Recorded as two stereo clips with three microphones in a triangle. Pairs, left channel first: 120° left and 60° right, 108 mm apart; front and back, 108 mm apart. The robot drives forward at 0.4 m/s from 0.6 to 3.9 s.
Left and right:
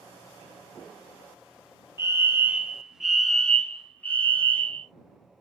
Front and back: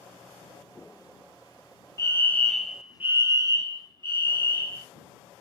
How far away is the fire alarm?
About 0.6 m.